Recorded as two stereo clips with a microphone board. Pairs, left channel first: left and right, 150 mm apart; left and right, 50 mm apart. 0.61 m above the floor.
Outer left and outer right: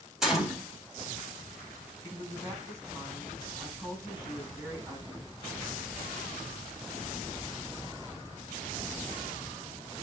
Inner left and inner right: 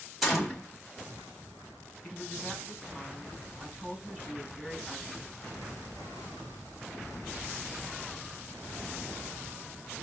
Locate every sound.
0.2 s a gunshot: 5° right (ahead or behind), 1.6 m
2.0 s a woman speaking: 20° right (ahead or behind), 5.5 m